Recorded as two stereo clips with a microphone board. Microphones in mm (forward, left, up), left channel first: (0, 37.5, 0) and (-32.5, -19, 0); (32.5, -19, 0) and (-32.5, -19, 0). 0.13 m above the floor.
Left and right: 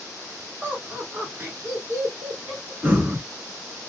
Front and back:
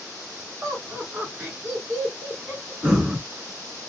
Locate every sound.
0.6 s laughter: 170° right, 1.6 m; by 2.7 s 65° right, 1.4 m
2.8 s breathing: 125° right, 1.4 m